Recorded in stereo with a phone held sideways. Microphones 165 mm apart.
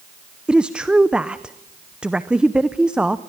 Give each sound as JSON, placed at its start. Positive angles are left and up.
{"t": 0.5, "sound": "a woman speaking", "side_deg": -5, "distance_m": 0.7}